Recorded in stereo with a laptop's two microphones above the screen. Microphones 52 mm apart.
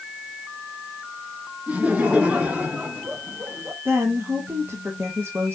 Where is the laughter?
25° right (ahead or behind), 2 m; by 3.8 s 35° right (ahead or behind), 1.2 m.